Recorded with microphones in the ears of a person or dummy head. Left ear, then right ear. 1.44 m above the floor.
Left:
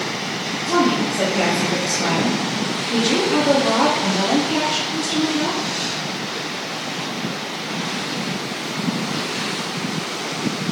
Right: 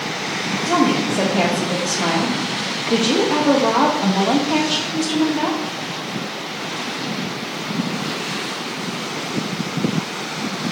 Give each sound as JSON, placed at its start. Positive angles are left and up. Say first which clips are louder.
{"t": 0.7, "sound": "a woman speaking", "louder": "even", "side_deg": -65, "distance_m": 0.7}